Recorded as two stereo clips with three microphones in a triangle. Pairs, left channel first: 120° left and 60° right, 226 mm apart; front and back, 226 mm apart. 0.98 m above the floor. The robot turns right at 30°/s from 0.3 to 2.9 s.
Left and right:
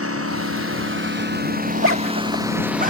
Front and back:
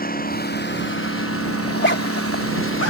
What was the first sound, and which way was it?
A lawn mower, 50° right.